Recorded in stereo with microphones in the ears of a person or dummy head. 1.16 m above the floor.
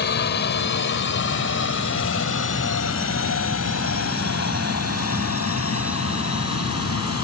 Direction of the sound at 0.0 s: 55° left (ahead or behind).